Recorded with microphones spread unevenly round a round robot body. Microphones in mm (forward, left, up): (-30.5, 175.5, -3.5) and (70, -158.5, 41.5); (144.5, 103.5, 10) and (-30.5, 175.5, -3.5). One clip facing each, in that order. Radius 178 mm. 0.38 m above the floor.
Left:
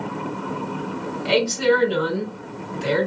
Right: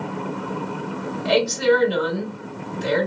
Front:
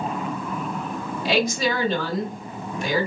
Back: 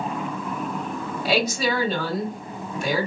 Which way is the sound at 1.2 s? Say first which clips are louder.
Right 1 dB, front 1 dB; 70° left.